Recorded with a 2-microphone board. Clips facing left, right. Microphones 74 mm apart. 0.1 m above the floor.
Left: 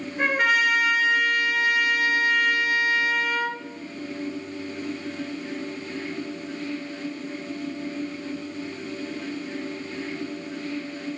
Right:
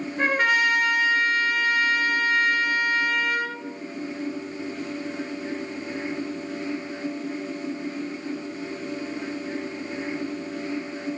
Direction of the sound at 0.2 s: Centre (ahead or behind).